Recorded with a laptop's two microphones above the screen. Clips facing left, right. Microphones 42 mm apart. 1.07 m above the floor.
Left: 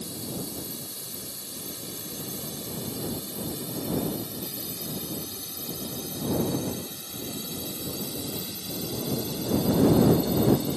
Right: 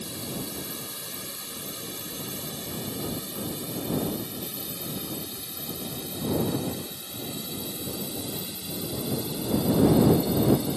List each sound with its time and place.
0.0 s a drone: 50° right (ahead or behind); by 10.8 s 20° right (ahead or behind)